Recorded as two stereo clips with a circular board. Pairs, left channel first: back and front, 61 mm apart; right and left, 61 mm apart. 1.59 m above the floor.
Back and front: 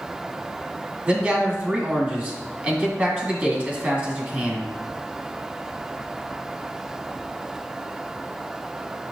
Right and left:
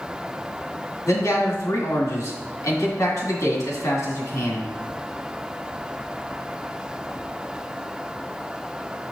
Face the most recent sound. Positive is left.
turn(degrees=-60)